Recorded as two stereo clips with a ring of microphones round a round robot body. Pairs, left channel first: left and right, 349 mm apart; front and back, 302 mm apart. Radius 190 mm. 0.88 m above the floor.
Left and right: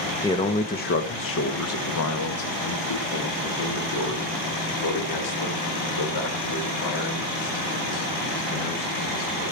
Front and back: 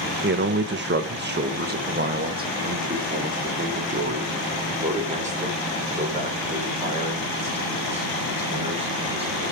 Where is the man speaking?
165° left, 1.0 m; by 9.5 s 110° left, 6 m.